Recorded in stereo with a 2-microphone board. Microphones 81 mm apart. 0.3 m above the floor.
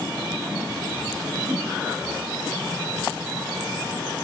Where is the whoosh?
10° right (ahead or behind), 6 m.